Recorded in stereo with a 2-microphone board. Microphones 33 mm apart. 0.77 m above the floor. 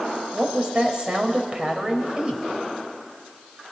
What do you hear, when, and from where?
0.3 s a woman speaking: 25° right (ahead or behind), 3.5 m